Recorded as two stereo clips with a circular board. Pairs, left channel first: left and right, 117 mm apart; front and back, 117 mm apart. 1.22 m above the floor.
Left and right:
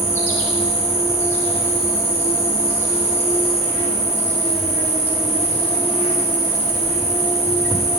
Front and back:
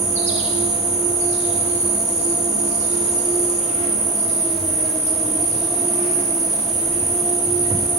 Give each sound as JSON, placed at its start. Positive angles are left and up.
{"t": 0.0, "sound": "an insect", "azimuth_deg": 160, "distance_m": 1.7}